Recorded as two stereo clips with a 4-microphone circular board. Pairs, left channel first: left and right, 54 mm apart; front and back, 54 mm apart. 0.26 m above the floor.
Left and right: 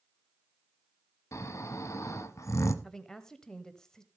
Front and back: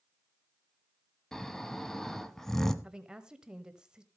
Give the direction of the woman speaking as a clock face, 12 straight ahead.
7 o'clock.